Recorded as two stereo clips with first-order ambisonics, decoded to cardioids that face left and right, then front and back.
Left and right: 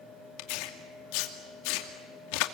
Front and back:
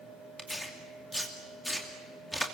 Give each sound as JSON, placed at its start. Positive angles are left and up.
{"t": 0.4, "sound": "tearing paper", "azimuth_deg": 90, "distance_m": 2.5}